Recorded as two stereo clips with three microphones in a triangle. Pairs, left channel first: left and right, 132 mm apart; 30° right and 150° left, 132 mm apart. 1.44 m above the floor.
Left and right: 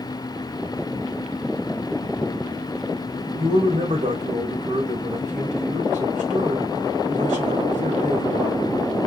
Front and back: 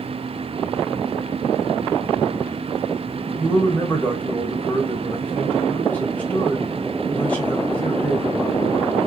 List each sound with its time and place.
3.4 s a man speaking: 110° right, 1.3 m